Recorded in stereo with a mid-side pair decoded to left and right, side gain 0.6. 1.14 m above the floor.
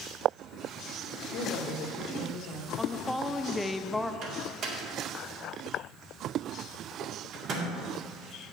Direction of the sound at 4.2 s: 55° right.